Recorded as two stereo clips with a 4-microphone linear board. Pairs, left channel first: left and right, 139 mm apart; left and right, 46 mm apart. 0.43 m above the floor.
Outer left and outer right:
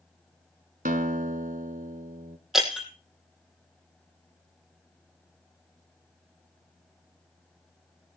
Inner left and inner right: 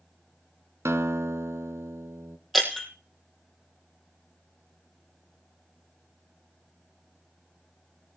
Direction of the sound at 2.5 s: Centre (ahead or behind).